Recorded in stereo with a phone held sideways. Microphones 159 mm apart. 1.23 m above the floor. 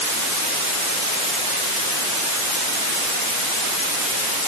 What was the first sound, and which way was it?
Only background noise.